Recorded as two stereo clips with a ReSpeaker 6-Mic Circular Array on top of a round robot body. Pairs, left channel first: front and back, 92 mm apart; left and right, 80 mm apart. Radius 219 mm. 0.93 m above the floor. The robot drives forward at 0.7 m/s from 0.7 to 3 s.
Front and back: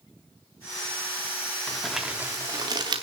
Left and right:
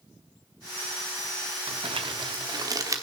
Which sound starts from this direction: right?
Crumpling, at 1.7 s.